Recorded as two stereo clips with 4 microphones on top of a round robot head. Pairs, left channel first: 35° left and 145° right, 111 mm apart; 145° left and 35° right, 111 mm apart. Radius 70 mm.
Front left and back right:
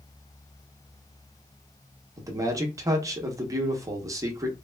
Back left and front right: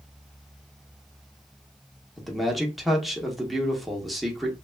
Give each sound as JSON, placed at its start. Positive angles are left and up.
{"t": 2.2, "sound": "a man speaking", "azimuth_deg": -125, "distance_m": 0.8}